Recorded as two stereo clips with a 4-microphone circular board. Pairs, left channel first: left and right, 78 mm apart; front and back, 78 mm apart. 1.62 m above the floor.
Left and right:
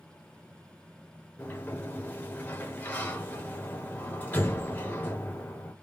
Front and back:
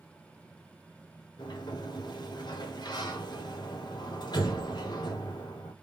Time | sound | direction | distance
1.4 | a sliding door | 25° left | 1.1 m